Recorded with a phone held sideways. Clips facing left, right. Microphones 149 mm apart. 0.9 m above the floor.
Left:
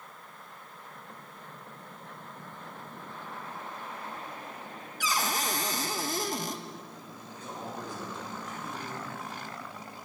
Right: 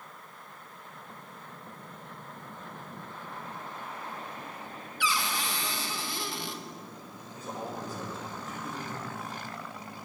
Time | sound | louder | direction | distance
5.0 | a cupboard door | left 1 dB | 40° left (ahead or behind) | 0.6 m
7.3 | a man speaking | right 3 dB | 40° right (ahead or behind) | 4 m